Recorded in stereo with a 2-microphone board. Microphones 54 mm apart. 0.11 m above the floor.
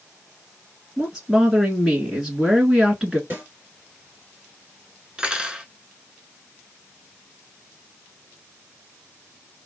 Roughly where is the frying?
I don't hear frying.